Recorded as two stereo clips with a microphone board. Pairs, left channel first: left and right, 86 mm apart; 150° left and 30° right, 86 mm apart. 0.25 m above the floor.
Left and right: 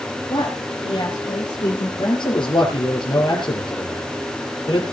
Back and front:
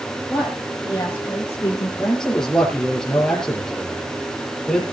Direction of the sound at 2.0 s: 65° left.